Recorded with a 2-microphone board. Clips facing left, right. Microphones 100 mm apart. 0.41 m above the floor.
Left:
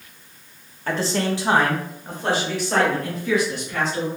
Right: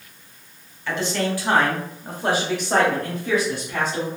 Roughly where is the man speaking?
Left.